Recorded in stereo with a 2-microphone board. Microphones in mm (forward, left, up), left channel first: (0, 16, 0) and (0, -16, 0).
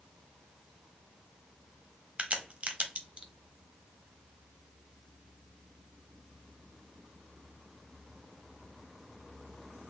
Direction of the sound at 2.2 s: 40° right (ahead or behind).